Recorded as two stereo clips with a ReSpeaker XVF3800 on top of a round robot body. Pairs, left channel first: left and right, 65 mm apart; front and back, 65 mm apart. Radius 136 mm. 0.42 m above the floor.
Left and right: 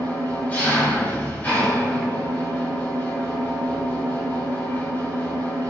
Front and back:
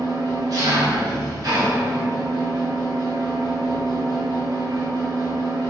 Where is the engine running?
160° left, 1.5 m.